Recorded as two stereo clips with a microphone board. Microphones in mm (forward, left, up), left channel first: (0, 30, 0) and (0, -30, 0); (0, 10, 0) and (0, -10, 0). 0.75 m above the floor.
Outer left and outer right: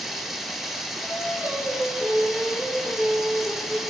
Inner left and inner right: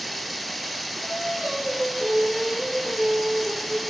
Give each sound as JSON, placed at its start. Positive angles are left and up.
{"t": 0.0, "sound": "running water", "side_deg": 0, "distance_m": 1.0}
{"t": 1.0, "sound": "singing", "side_deg": -35, "distance_m": 6.0}